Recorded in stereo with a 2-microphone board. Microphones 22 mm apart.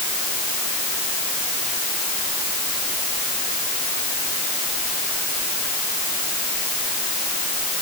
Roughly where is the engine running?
I don't hear an engine running.